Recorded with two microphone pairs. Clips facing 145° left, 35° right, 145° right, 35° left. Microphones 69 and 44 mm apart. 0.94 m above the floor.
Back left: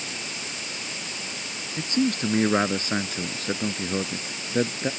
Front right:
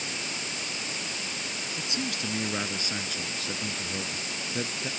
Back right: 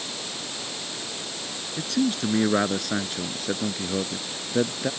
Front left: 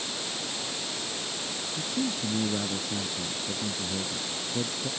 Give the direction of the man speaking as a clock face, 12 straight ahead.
5 o'clock.